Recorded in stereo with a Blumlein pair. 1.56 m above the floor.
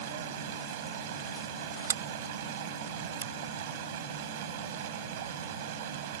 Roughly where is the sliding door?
Ahead right.